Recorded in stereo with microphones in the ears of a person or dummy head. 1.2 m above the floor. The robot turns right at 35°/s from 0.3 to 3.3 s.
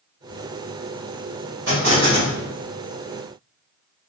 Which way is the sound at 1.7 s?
70° right (ahead or behind).